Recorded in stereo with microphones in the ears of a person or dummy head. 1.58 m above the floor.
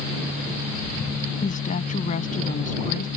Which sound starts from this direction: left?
A woman speaking, at 1.4 s.